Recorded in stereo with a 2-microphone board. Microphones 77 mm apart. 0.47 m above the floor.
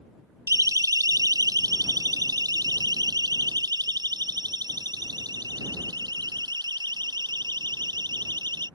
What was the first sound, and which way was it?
A siren, 50° right (ahead or behind).